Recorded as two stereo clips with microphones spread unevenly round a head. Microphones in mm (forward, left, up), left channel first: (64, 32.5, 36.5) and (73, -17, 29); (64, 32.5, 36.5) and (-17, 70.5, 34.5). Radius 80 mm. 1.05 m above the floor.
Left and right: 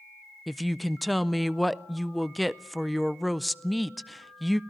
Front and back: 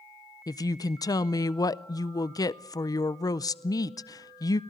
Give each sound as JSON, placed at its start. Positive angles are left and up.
{"t": 0.5, "sound": "a woman speaking", "azimuth_deg": 0, "distance_m": 0.6}